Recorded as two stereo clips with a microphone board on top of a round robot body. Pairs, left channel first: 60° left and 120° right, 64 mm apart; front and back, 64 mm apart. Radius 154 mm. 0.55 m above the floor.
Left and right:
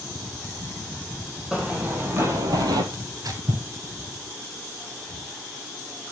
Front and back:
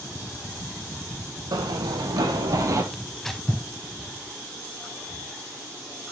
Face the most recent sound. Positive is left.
turn(degrees=-85)